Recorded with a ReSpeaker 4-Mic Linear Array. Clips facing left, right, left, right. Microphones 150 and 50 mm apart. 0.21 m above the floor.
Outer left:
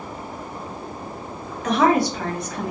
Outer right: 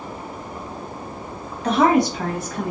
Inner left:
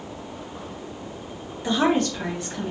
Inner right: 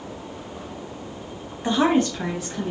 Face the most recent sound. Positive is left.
turn(degrees=10)  # may be behind; listen again after turning